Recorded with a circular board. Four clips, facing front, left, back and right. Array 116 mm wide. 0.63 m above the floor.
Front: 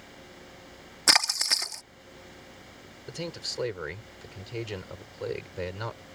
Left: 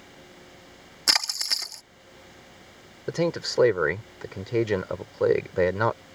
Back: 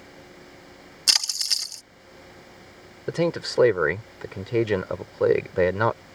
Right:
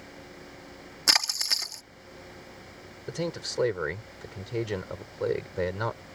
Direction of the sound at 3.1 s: 145° left.